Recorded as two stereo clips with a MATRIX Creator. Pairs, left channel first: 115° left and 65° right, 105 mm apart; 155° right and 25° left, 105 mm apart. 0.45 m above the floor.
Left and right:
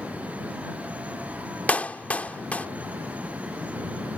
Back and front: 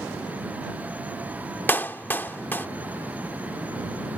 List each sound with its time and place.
1.7 s a clap: 165° left